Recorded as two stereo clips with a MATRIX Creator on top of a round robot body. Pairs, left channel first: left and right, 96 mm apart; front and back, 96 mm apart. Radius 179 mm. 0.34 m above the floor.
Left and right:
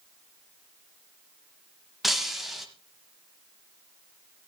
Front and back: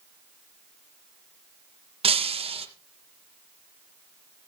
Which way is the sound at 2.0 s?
Straight behind.